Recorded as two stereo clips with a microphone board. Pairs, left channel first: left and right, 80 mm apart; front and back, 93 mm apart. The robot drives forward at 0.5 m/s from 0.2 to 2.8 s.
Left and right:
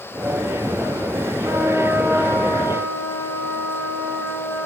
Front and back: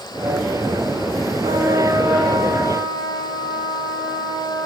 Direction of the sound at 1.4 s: 150° right.